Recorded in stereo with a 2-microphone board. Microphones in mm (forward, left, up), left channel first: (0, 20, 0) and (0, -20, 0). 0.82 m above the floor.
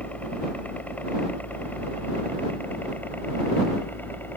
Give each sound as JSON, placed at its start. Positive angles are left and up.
{"t": 0.0, "sound": "a helicopter", "side_deg": 35}